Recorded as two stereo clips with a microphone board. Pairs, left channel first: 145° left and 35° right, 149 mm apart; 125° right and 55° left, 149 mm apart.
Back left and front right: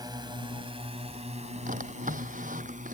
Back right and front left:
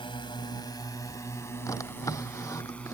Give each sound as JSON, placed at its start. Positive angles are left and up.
{"t": 0.0, "sound": "a drone", "azimuth_deg": -85}
{"t": 1.7, "sound": "a drawer", "azimuth_deg": -55}